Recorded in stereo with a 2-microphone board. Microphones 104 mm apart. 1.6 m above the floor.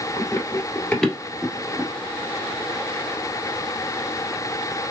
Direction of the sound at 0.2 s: 30° left (ahead or behind).